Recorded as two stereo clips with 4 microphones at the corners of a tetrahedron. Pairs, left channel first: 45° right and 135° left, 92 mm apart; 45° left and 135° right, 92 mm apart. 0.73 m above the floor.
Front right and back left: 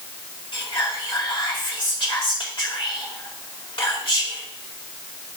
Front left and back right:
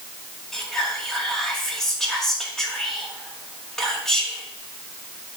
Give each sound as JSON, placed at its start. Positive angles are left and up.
{"t": 0.5, "sound": "whispering", "azimuth_deg": -40, "distance_m": 1.8}